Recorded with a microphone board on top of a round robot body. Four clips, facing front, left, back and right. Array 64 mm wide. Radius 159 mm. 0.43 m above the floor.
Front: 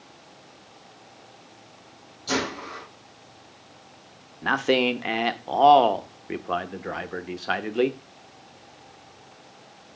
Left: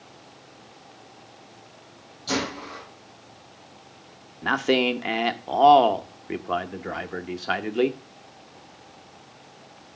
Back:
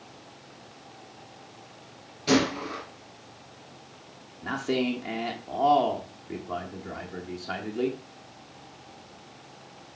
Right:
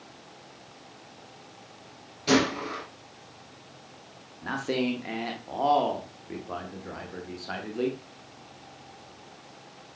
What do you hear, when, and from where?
2.3 s a gunshot: 140° right, 4 m
4.4 s a man speaking: 35° left, 1.4 m